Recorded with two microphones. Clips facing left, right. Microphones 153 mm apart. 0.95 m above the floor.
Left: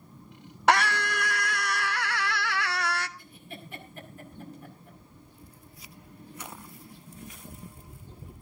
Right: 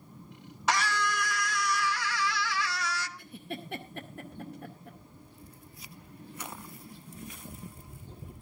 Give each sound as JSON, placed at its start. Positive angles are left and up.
{"t": 0.7, "sound": "a scream", "side_deg": 65, "distance_m": 1.1}
{"t": 3.2, "sound": "a giggle", "side_deg": -75, "distance_m": 2.0}